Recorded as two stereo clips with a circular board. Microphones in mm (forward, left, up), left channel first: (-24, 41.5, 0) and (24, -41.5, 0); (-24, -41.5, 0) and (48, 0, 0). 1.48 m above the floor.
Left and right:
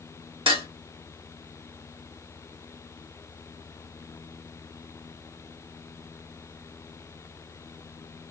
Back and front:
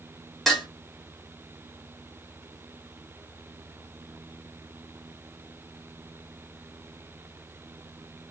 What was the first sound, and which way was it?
Dishes clattering, 60° right.